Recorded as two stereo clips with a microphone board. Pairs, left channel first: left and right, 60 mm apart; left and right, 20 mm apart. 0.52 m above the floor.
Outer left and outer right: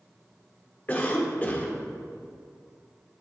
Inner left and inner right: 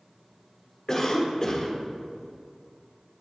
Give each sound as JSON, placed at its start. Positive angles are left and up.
{"t": 0.9, "sound": "a cough", "side_deg": 25, "distance_m": 1.1}